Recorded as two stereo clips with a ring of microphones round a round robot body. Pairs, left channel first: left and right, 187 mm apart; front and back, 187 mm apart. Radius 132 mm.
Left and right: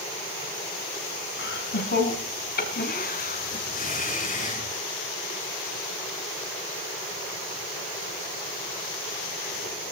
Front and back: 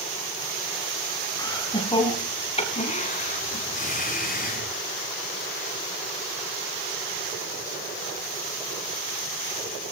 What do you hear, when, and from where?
1.4 s laughter: 70° left, 4 m; by 4.7 s 40° left, 6 m